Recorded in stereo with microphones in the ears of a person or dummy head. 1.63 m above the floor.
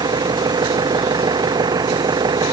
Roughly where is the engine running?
Centre.